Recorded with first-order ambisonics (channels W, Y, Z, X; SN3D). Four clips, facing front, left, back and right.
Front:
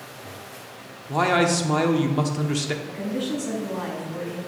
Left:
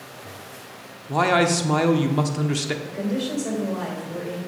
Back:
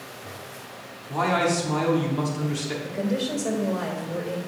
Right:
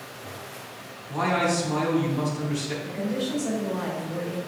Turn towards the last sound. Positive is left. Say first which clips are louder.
# left 2 dB, back 2 dB
turn(degrees=155)